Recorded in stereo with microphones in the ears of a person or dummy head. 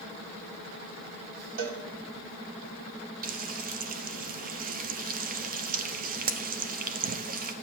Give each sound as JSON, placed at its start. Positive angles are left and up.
{"t": 1.6, "sound": "a cowbell", "side_deg": -75, "distance_m": 2.0}
{"t": 3.2, "sound": "frying", "side_deg": -40, "distance_m": 0.6}